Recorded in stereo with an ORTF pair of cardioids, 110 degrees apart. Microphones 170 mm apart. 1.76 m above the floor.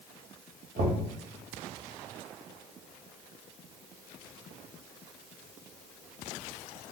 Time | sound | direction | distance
0.8 | knocking | 65° right | 1.3 m